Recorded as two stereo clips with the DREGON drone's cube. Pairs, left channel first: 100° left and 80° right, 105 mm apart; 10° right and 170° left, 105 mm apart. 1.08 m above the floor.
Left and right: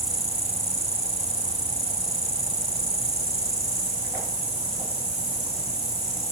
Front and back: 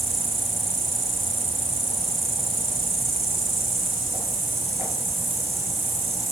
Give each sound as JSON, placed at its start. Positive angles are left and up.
{"t": 0.0, "sound": "an insect", "azimuth_deg": 80, "distance_m": 8.5}